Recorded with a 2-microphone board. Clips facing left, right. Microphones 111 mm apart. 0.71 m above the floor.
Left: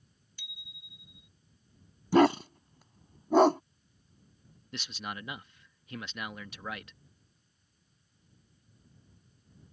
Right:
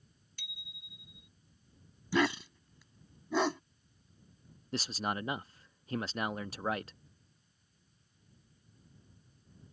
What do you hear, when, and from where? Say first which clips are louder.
0.4 s a bicycle bell: even; 65° right (ahead or behind)
2.1 s a dog barking: left 8 dB; 50° left (ahead or behind)
4.7 s a man speaking: right 5 dB; 35° right (ahead or behind)